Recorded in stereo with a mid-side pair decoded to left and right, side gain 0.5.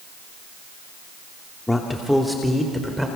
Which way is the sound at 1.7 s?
15° left.